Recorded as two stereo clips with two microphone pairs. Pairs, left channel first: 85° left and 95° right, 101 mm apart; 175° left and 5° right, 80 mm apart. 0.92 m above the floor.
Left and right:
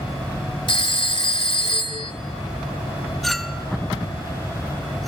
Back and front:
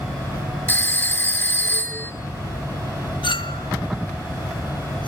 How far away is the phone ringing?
About 2.0 m.